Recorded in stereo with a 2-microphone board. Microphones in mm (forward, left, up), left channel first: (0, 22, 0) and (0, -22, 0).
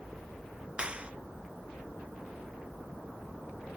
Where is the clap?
25° right (ahead or behind).